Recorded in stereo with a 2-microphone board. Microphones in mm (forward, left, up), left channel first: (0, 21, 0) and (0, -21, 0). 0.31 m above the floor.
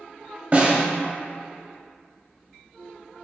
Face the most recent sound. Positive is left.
turn(degrees=-40)  # may be behind; listen again after turning